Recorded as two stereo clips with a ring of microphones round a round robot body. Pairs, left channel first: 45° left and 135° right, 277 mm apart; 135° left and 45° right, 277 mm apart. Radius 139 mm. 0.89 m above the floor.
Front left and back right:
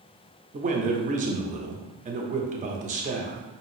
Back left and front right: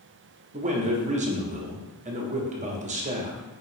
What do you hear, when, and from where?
0.5 s a man speaking: 90° right, 0.7 m